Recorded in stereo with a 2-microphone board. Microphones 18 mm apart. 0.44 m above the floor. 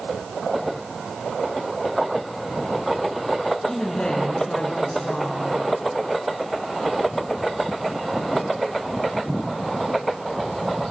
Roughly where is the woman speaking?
Left.